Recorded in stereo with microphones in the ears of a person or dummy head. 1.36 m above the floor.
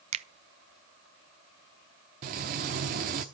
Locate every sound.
0.1 s a finger snap: 35° right (ahead or behind), 0.6 m
2.2 s frying: 35° right (ahead or behind), 1.0 m